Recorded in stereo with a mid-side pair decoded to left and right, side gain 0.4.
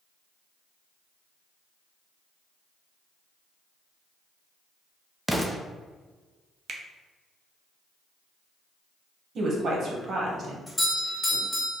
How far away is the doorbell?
About 1.8 m.